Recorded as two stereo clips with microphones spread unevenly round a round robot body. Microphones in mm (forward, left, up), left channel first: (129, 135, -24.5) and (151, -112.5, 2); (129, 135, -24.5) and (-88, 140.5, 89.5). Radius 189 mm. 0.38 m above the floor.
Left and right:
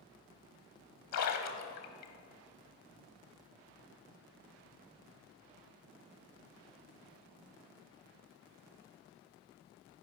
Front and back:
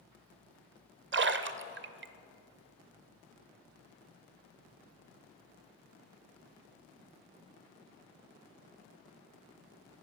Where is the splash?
125° left, 0.7 m.